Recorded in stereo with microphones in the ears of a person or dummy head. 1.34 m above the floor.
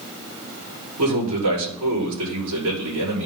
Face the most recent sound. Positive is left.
turn(degrees=-85)